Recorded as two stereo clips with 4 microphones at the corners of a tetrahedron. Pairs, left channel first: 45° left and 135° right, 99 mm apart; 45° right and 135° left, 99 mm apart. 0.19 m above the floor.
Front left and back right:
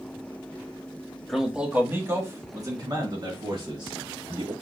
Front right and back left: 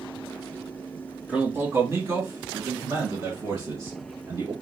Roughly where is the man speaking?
Behind left.